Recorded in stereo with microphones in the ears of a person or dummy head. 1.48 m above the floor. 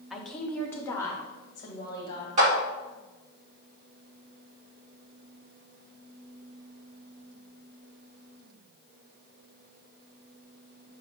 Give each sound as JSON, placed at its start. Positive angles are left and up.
{"t": 0.1, "sound": "a woman speaking", "side_deg": -5, "distance_m": 0.8}
{"t": 2.4, "sound": "a clap", "side_deg": -40, "distance_m": 2.0}